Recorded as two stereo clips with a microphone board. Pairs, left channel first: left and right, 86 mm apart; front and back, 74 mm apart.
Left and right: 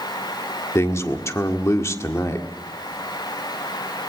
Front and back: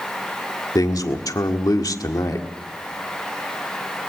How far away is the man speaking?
About 1.6 m.